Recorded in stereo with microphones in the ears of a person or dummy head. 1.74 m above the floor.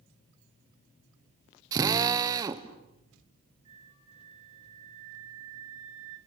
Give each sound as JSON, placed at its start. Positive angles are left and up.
{"t": 1.7, "sound": "a drill", "side_deg": -25, "distance_m": 1.1}
{"t": 3.6, "sound": "a flute", "side_deg": -35, "distance_m": 4.5}